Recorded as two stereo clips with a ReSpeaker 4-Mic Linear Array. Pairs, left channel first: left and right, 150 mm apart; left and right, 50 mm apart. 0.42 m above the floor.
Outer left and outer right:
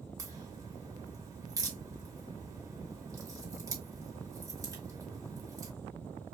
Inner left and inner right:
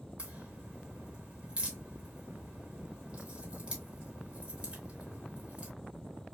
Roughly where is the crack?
Right.